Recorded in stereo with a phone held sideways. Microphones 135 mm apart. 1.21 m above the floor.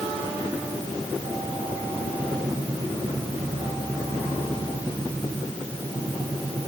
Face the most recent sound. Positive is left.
No sound to turn to.